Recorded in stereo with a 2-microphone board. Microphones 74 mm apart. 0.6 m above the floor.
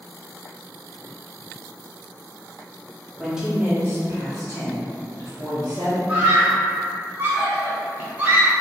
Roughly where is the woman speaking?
Centre.